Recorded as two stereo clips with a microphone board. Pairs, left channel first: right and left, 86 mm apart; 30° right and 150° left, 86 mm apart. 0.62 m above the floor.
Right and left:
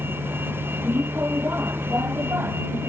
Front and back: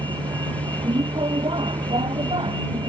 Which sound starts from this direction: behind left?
A vehicle, at 0.0 s.